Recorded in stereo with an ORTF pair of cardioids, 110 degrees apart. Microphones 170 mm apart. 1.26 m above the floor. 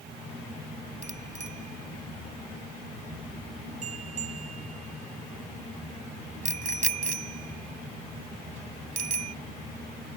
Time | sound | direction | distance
1.0 | a bicycle bell | 45° right | ?